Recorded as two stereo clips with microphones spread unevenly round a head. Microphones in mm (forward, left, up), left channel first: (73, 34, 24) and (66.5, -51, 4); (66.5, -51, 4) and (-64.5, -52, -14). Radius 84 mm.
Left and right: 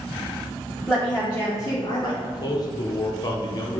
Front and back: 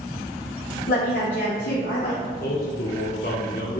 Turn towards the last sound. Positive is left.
turn(degrees=45)